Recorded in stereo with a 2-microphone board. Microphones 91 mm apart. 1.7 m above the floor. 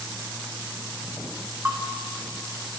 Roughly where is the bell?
Centre.